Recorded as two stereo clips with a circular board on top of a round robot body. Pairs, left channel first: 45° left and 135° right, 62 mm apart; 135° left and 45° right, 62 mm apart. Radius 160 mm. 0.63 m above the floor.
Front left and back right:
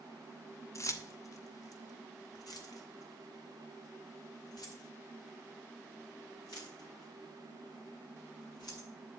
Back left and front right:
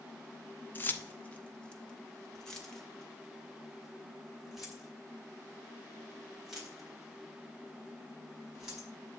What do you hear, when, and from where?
0.8 s keys jangling: 80° left, 1.0 m; by 8.9 s 40° left, 5 m